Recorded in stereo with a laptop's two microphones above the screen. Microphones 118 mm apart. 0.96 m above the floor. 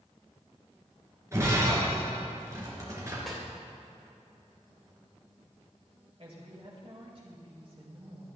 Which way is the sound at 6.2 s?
50° right (ahead or behind).